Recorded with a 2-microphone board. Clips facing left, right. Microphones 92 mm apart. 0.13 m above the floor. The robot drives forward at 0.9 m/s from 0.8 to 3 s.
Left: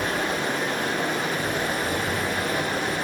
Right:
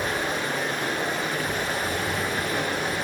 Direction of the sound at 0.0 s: 65° left (ahead or behind).